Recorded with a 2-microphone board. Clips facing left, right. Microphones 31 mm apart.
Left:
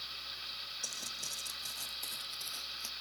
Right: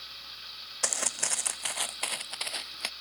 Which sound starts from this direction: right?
Footsteps, at 0.8 s.